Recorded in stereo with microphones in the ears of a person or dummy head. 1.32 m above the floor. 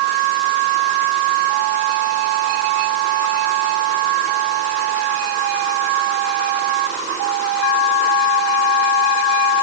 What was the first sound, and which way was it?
Only background noise.